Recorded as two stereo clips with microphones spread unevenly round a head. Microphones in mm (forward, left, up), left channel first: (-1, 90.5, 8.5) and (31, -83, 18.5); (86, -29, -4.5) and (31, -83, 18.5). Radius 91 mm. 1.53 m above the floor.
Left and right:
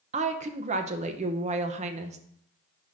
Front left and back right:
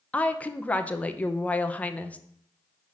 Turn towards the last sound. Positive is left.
turn(degrees=-35)